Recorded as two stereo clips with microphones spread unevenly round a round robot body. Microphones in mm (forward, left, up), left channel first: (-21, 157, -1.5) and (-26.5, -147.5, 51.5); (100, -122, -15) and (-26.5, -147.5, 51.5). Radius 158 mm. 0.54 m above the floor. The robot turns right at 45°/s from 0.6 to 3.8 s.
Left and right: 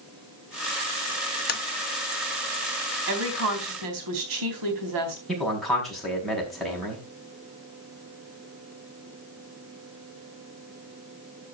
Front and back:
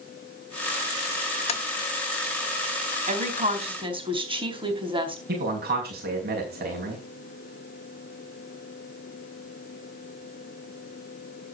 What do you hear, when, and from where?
1.5 s tapping: 35° left, 0.9 m; by 1.6 s 40° left, 0.9 m
3.1 s a woman speaking: 145° right, 4 m; by 5.2 s 115° right, 4 m
5.3 s a man speaking: 175° left, 5.5 m